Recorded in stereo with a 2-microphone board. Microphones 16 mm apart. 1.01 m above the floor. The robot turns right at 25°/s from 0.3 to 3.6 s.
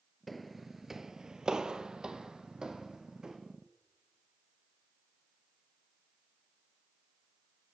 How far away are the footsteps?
About 1.3 m.